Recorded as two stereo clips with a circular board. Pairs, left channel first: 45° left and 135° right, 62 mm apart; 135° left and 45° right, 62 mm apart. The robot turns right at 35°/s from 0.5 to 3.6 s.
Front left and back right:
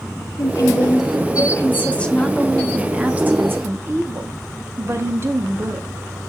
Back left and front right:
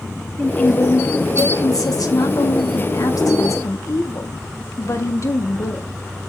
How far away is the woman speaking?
About 1.7 m.